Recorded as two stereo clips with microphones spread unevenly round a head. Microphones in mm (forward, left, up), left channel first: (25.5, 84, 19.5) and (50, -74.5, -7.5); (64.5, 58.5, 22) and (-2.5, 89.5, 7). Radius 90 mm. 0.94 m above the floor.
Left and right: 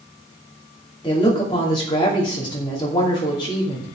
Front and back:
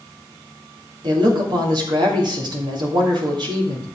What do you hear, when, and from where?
1.0 s a woman speaking: 170° left, 2.5 m